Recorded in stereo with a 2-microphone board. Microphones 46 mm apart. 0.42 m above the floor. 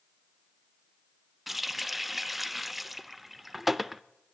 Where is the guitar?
I don't hear a guitar.